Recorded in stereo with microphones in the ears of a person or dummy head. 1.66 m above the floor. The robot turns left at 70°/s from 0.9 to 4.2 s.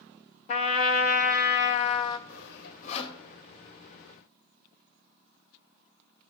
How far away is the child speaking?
I don't hear a child speaking.